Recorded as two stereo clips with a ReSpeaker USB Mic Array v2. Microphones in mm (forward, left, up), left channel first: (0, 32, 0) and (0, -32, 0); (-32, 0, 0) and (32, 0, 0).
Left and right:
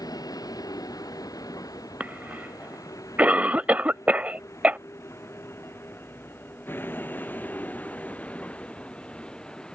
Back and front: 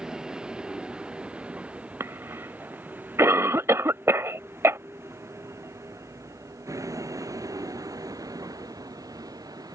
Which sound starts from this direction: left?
A vehicle, at 0.0 s.